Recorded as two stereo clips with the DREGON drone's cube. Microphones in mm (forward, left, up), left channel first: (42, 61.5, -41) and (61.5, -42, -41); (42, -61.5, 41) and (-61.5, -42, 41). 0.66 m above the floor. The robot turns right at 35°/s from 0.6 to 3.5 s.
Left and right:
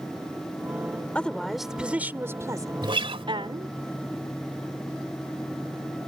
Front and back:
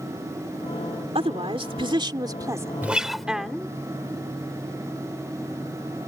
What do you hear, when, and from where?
1.1 s a woman speaking: 175° left; by 3.7 s 100° right
2.8 s a guitar: 115° right; by 3.3 s 100° right